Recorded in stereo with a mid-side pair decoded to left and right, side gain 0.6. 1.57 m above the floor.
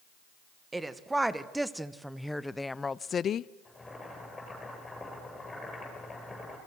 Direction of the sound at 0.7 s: 15° right.